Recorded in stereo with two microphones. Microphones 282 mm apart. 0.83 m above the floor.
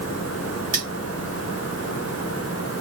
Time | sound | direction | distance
0.7 | cutlery clinking | 30° right (ahead or behind) | 3 m